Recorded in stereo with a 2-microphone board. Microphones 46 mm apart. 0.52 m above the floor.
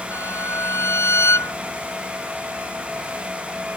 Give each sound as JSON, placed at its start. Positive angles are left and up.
{"t": 0.1, "sound": "a violin", "side_deg": 75}